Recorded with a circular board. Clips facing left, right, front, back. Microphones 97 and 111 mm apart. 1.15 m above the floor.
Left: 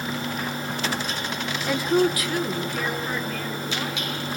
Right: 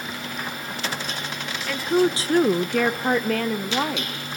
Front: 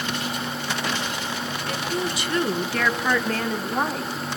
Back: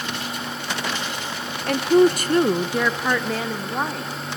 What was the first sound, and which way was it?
A woman speaking, 155° left.